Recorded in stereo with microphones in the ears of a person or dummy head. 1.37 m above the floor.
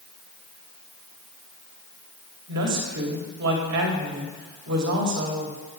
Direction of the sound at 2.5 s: 65° right (ahead or behind).